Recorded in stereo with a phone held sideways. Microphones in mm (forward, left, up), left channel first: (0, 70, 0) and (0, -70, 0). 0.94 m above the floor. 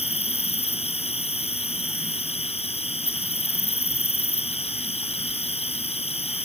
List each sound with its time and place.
0.0 s an insect: 45° left (ahead or behind)